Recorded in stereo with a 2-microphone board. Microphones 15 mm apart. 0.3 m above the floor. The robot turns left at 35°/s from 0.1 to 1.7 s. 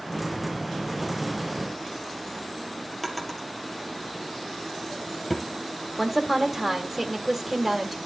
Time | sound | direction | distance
3.0 | a drawer | 10° left (ahead or behind) | 2.5 m
6.0 | a woman speaking | 10° right (ahead or behind) | 1.4 m